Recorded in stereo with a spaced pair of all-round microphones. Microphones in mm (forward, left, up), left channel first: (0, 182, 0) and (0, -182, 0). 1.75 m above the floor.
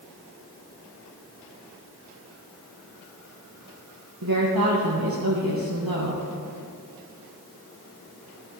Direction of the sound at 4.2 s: 80° right.